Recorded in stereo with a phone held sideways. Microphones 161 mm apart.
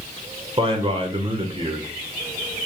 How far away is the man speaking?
About 1.2 m.